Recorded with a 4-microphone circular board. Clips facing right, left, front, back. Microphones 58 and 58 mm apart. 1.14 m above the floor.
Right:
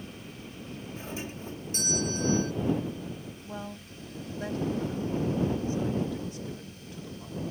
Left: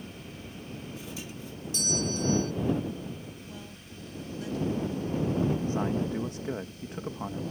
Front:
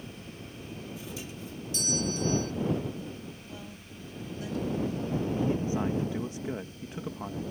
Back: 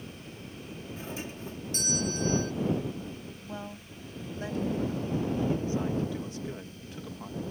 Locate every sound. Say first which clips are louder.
1.0 s a doorbell: right 3 dB, back 2 dB; 135° right
3.4 s a woman speaking: right 5 dB, back 4 dB; 130° right
5.3 s a man speaking: left 1 dB, front 1 dB; 65° left